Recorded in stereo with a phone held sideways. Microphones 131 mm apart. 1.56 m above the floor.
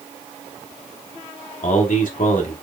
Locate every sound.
1.6 s a man speaking: 70° left (ahead or behind), 1.0 m